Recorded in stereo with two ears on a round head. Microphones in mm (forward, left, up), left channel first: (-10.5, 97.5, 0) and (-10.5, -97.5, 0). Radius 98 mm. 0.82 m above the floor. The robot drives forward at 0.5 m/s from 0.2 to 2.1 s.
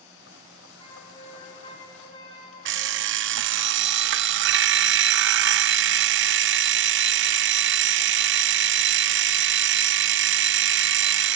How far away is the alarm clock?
About 0.5 m.